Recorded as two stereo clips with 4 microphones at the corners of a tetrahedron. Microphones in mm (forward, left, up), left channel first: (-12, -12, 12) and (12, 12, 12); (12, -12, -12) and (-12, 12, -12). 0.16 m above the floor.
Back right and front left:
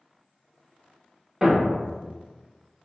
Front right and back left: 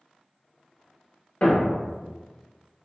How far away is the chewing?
No chewing in this recording.